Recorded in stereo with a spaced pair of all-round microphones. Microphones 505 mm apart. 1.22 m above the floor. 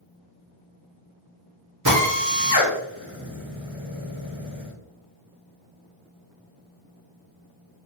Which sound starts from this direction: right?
A drill, at 1.9 s.